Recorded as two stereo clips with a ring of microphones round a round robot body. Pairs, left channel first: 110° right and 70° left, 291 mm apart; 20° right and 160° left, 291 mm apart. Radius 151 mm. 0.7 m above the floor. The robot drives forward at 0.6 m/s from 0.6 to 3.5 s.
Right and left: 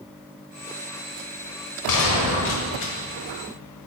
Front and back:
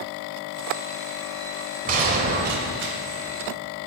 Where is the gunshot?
140° right, 1.6 m; by 2.9 s 150° right, 2 m.